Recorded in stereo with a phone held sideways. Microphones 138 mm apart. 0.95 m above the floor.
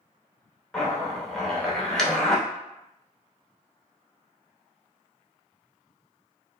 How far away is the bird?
I don't hear a bird.